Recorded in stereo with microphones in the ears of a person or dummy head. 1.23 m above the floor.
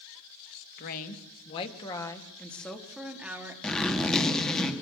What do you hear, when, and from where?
0.8 s a woman speaking: 50° left (ahead or behind), 2 m; by 3.5 s 15° right (ahead or behind), 3 m
3.6 s a zipper: centre (ahead or behind), 2 m